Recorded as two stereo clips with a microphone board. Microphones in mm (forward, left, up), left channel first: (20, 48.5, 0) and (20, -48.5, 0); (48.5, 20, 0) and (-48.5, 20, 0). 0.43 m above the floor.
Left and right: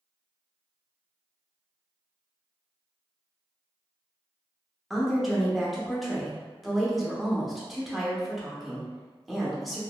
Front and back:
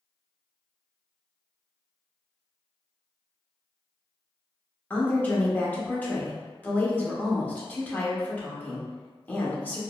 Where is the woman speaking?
Straight ahead, 0.7 m.